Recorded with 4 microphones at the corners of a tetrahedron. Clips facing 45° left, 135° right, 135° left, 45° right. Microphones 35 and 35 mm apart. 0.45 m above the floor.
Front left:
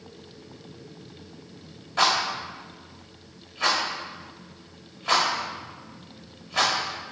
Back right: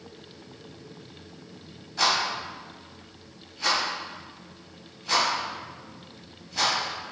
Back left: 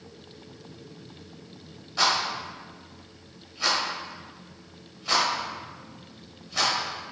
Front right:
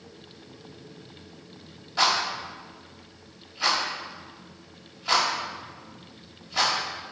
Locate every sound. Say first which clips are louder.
2.0 s a rattle: front left 2 dB, front right 1 dB; 35° left, 1.7 m